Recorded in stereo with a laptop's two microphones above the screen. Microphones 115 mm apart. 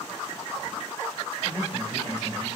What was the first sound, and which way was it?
A man speaking, 25° left (ahead or behind).